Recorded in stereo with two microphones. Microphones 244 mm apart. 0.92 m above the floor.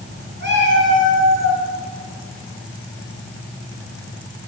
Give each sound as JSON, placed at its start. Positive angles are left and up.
{"t": 0.4, "sound": "a cat meowing", "side_deg": -40, "distance_m": 3.0}